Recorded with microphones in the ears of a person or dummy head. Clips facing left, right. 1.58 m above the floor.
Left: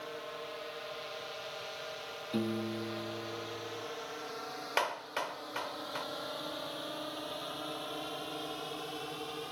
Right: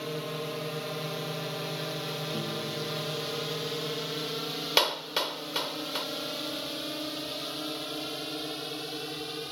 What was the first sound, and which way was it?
A drone, 55° right (ahead or behind).